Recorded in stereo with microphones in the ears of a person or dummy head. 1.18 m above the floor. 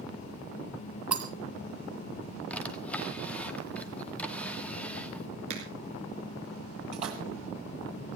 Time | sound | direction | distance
1.1 | breaking glass | 5° right (ahead or behind) | 1.8 m
2.5 | a drawer | 10° left (ahead or behind) | 1.5 m
5.5 | a finger snap | 40° right (ahead or behind) | 5.5 m
6.9 | a splash | 40° right (ahead or behind) | 1.8 m